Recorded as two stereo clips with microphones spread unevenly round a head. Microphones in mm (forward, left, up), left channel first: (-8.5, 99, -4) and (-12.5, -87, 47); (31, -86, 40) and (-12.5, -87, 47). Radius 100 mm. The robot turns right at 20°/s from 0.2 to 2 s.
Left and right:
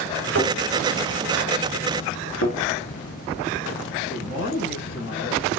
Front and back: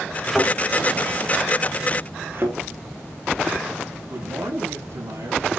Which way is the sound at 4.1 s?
130° left.